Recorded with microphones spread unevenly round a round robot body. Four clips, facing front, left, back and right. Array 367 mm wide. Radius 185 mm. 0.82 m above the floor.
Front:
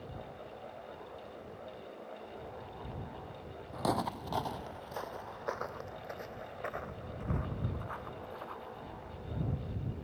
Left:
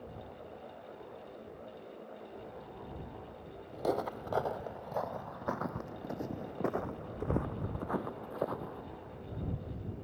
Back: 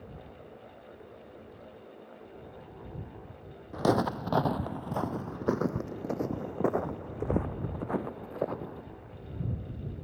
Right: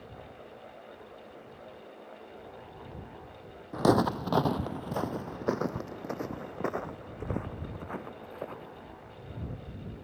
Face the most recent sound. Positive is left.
turn(degrees=160)